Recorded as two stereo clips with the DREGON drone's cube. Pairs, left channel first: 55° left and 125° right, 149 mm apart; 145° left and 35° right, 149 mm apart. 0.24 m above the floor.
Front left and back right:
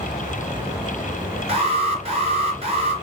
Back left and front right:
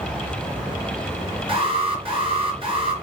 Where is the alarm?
85° right, 4 m.